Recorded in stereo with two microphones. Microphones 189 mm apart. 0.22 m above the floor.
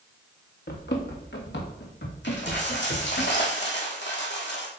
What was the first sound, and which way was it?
Running footsteps, 60° left (ahead or behind).